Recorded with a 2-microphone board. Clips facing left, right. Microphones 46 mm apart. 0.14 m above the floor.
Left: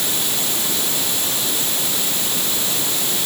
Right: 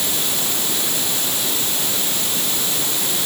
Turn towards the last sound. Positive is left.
No sound to turn to.